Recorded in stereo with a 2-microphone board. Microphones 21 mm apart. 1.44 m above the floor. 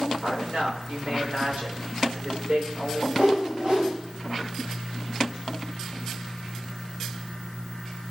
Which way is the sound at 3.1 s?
60° right (ahead or behind).